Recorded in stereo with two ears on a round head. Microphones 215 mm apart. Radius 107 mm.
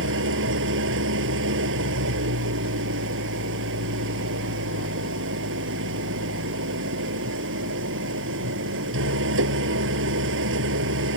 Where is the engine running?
60° right (ahead or behind).